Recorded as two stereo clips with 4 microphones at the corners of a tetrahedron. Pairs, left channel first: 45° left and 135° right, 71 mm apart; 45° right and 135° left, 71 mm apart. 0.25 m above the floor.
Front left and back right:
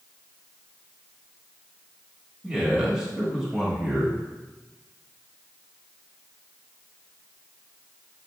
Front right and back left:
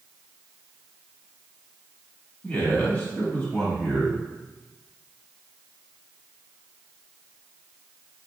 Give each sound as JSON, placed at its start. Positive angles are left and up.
{"t": 2.4, "sound": "a man speaking", "azimuth_deg": -60, "distance_m": 1.1}